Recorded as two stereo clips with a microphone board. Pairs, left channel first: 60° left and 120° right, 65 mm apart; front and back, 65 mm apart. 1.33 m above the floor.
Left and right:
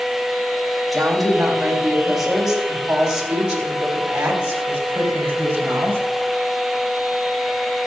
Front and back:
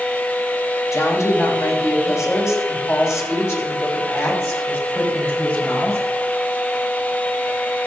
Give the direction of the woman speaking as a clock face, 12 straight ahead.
1 o'clock.